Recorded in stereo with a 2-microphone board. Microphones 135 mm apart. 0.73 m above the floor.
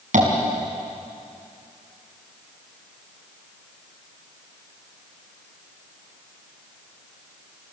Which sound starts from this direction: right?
Tapping, at 0.1 s.